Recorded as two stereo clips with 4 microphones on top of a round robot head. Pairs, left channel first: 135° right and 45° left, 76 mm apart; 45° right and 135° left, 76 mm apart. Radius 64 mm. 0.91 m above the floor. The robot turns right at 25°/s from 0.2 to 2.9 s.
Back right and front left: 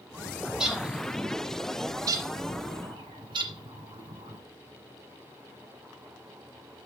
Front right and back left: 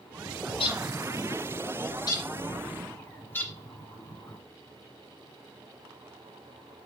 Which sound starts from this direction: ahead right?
A bird, at 0.5 s.